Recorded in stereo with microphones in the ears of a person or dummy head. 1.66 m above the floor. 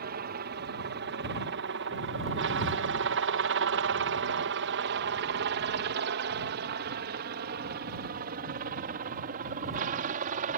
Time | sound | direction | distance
0.0 | a helicopter | 50° right (ahead or behind) | ?